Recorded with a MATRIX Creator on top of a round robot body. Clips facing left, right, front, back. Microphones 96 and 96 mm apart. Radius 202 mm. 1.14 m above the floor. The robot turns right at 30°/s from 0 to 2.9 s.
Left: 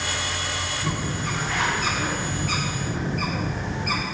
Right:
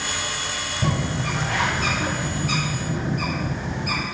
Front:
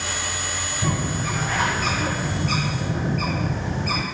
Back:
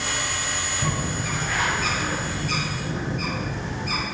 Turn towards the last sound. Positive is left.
turn(degrees=-10)